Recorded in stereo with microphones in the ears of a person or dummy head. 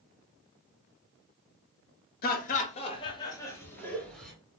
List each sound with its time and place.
2.2 s laughter: 50° left (ahead or behind), 0.7 m; by 4.3 s centre (ahead or behind), 1.2 m